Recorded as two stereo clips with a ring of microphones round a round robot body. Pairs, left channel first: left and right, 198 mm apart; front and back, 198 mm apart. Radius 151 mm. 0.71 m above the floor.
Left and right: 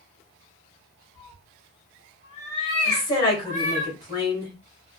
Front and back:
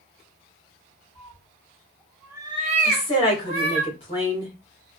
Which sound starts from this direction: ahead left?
A woman speaking, at 2.9 s.